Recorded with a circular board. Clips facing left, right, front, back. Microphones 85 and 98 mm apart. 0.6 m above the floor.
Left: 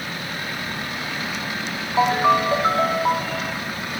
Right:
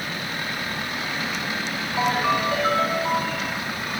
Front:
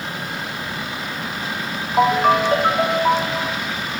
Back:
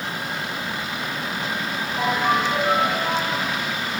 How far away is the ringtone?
About 2 m.